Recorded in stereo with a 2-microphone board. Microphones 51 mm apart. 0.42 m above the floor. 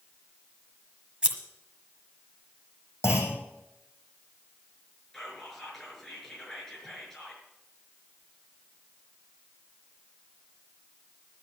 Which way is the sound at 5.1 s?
10° left (ahead or behind).